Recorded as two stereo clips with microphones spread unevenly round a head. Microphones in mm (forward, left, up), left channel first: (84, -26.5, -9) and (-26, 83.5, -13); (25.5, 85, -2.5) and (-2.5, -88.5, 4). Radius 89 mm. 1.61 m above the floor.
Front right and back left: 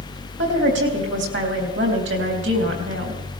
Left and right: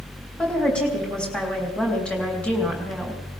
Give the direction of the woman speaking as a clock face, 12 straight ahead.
6 o'clock.